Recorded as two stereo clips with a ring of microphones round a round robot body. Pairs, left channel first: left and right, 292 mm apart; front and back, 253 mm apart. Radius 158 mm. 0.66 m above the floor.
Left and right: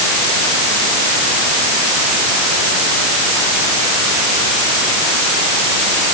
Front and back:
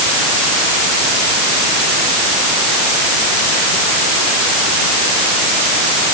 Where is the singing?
No singing in this recording.